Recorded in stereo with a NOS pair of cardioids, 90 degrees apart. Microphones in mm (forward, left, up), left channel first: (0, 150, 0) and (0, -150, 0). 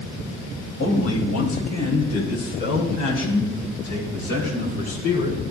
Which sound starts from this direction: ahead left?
A man speaking, at 0.8 s.